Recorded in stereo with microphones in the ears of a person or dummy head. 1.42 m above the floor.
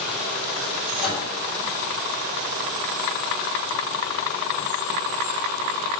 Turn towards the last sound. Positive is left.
turn(degrees=5)  # may be behind; listen again after turning